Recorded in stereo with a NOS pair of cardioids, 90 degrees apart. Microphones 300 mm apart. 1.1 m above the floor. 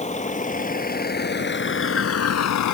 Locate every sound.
0.0 s a vehicle: 25° left; by 2.8 s 75° left